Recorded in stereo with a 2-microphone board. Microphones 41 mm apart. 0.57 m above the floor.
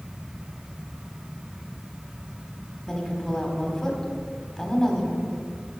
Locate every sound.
2.9 s a woman speaking: 10° left (ahead or behind), 1.4 m